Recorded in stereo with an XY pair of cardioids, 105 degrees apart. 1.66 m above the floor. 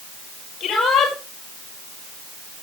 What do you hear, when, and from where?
0.6 s a shout: 65° left, 6.5 m